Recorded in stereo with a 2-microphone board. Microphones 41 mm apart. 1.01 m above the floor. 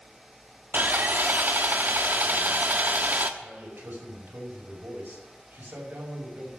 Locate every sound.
0.7 s sawing: 50° right (ahead or behind), 1.0 m
3.4 s a man speaking: 65° right (ahead or behind), 5 m